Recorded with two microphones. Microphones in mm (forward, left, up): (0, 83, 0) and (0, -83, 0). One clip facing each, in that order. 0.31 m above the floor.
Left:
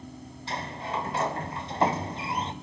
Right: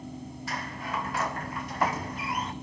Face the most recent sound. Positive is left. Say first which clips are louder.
# left 3 dB
turn(degrees=25)  # may be behind; listen again after turning